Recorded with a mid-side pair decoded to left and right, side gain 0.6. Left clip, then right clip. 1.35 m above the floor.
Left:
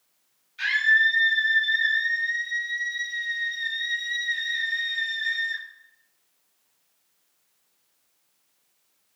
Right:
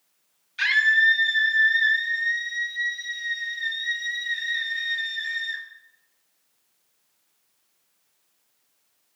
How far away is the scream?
About 2.5 m.